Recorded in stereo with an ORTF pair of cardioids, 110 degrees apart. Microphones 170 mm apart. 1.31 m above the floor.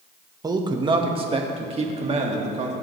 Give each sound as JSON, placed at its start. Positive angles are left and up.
{"t": 0.4, "sound": "a man speaking", "azimuth_deg": -20, "distance_m": 1.5}